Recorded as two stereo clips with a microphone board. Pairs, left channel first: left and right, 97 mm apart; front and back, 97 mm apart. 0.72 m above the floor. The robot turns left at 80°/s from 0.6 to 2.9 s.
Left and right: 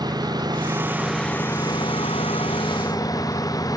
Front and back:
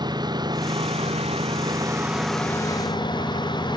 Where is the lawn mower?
135° right; by 3.8 s 40° left.